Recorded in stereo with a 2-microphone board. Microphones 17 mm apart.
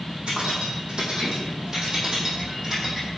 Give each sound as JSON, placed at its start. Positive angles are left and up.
{"t": 0.3, "sound": "keys jangling", "side_deg": -65, "distance_m": 4.5}